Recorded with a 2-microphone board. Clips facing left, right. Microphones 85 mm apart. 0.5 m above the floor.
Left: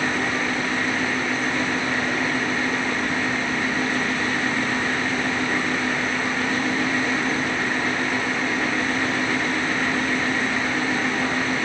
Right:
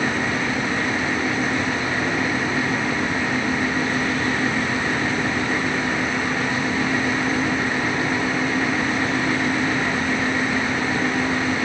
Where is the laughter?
No laughter in this recording.